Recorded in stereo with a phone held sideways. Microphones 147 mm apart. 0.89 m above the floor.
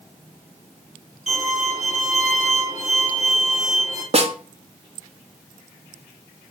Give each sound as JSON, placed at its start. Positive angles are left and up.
{"t": 1.3, "sound": "a violin", "side_deg": 50, "distance_m": 2.0}
{"t": 4.1, "sound": "a snare drum", "side_deg": -45, "distance_m": 0.5}